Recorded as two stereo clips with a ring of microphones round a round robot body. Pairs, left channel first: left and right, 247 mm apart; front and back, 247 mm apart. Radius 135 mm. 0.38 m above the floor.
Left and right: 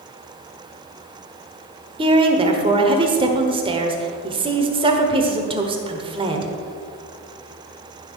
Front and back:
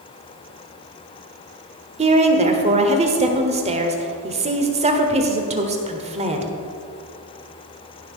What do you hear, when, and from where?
2.0 s a woman speaking: 140° right, 1.3 m